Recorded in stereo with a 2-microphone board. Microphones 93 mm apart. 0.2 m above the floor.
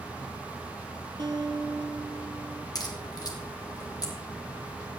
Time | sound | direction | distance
1.2 | a guitar | 50° right (ahead or behind) | 1.2 m
2.8 | a crack | 40° left (ahead or behind) | 3 m